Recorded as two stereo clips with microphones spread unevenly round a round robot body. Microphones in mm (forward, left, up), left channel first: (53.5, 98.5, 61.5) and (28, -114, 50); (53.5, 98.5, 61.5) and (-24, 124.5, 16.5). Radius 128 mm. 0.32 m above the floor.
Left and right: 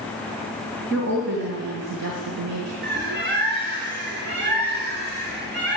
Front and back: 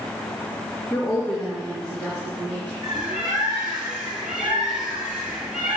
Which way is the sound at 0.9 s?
120° right.